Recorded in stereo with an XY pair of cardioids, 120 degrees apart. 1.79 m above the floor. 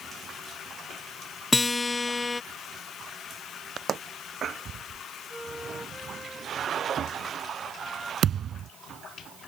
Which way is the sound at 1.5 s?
15° left.